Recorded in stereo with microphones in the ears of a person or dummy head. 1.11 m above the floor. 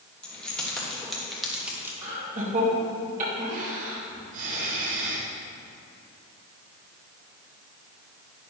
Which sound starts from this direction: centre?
Keys jangling, at 0.2 s.